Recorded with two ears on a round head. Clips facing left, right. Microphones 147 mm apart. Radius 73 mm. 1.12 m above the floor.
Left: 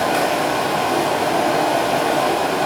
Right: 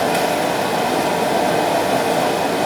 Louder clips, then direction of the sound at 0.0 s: Right 1 dB; 10° right (ahead or behind).